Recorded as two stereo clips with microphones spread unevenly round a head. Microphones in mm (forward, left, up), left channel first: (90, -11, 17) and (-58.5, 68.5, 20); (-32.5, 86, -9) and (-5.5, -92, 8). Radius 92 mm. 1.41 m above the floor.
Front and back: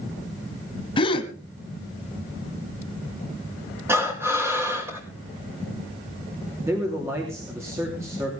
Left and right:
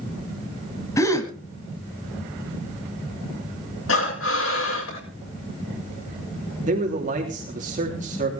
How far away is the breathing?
About 7.5 m.